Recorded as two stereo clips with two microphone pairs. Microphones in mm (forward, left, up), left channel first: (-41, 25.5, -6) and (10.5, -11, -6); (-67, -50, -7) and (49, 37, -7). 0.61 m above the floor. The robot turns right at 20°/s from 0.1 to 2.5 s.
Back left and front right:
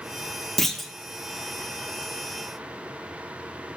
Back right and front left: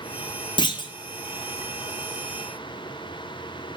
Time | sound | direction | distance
0.6 | a clunk | 135° right | 1.1 m